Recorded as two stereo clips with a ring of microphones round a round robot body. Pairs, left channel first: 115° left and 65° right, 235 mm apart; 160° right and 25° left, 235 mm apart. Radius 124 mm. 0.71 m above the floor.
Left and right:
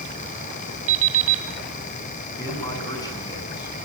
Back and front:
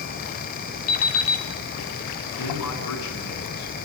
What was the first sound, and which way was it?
An alarm clock, 105° right.